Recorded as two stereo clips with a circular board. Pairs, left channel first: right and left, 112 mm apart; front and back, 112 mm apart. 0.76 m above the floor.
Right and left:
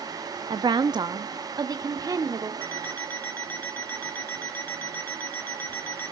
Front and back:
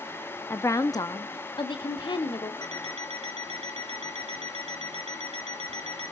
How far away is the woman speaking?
About 0.6 m.